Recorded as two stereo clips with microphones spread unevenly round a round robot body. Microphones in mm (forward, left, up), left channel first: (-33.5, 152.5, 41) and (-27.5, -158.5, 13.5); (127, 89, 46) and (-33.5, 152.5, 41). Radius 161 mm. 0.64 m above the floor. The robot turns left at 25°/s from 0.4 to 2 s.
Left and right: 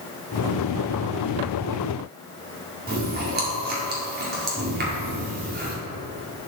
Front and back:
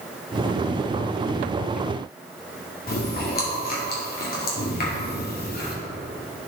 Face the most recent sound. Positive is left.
turn(degrees=-40)